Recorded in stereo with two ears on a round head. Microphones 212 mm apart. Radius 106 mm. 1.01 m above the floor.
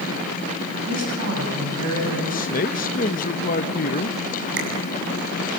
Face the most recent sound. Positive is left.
turn(degrees=-50)  # may be behind; listen again after turning